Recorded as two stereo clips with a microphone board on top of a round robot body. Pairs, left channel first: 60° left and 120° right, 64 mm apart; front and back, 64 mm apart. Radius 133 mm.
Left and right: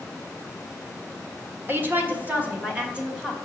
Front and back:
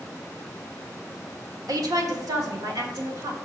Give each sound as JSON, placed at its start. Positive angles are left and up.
{"t": 1.7, "sound": "a woman speaking", "azimuth_deg": -175, "distance_m": 1.6}